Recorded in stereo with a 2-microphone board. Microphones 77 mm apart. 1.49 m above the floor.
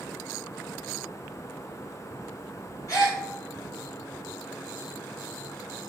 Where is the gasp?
45° left (ahead or behind), 1.4 m.